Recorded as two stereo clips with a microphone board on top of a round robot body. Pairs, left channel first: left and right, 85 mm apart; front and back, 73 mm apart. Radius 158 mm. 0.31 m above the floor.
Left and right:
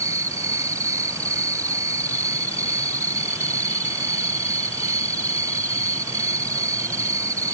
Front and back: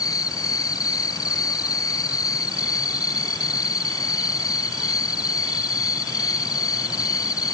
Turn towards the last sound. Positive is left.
turn(degrees=-35)